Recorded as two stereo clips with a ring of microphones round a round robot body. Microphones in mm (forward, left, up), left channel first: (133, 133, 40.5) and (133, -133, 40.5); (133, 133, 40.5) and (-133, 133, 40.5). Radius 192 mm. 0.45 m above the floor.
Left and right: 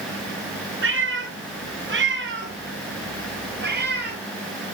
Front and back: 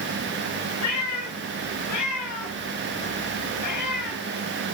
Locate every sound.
0.8 s a cat meowing: 50° right, 7 m; by 4.2 s 40° right, 5.5 m